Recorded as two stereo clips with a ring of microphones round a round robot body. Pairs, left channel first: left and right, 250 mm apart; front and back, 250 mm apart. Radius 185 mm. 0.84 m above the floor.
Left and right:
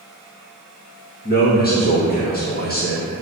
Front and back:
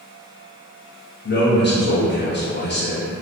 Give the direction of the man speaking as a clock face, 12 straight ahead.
11 o'clock.